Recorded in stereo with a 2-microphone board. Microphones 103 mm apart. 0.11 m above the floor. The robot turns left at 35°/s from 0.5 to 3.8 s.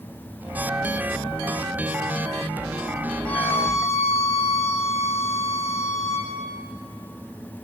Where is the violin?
10° left (ahead or behind), 5 m; by 6.3 s 30° left (ahead or behind), 5 m.